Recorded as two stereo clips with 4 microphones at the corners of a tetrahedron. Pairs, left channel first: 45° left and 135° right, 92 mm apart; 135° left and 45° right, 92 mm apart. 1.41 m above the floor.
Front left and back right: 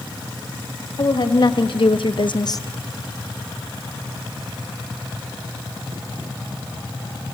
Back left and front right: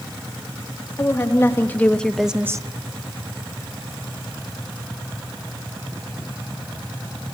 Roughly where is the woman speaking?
Left.